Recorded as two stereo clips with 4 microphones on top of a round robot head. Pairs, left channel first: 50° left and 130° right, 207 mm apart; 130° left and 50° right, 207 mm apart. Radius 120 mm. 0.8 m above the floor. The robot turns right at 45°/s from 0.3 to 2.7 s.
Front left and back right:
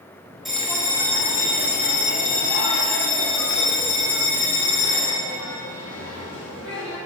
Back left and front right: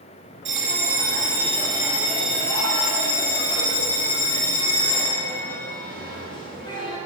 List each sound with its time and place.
0.5 s a bell: 40° right, 1.7 m; by 7.0 s 65° left, 1.7 m